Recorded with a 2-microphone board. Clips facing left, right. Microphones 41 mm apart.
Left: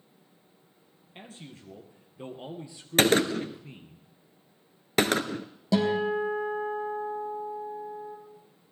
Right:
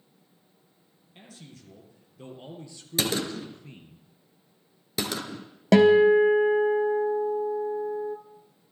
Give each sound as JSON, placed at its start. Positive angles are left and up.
{"t": 1.1, "sound": "a man speaking", "side_deg": 35, "distance_m": 3.0}
{"t": 3.0, "sound": "a gunshot", "side_deg": 50, "distance_m": 0.9}
{"t": 5.7, "sound": "a guitar", "side_deg": -60, "distance_m": 1.2}